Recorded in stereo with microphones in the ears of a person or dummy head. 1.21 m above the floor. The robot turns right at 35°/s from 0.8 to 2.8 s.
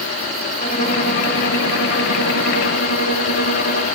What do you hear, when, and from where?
0.6 s a violin: 45° left, 4 m; by 3.9 s 115° left, 4 m